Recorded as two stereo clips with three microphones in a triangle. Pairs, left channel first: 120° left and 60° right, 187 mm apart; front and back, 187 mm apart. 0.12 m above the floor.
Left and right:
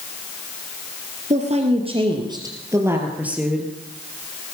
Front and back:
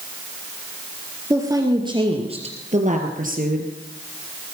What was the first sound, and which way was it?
A woman speaking, 105° right.